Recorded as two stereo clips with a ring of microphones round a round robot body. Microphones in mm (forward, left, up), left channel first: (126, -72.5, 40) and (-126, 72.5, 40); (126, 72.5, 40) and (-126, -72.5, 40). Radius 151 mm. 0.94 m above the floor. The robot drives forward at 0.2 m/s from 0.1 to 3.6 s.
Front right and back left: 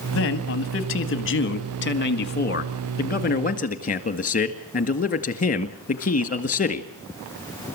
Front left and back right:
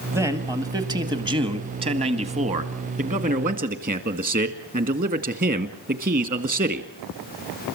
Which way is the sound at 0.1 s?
70° right.